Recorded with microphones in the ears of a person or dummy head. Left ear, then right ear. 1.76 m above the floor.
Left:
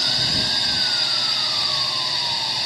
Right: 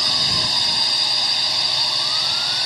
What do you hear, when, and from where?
0.0 s a drone: 20° right (ahead or behind)